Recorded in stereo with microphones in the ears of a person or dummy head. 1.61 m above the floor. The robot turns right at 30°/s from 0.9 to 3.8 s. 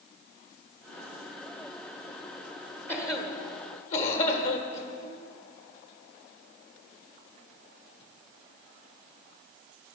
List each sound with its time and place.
2.9 s a cough: 15° left (ahead or behind), 1.6 m; by 4.9 s 45° left (ahead or behind), 1.6 m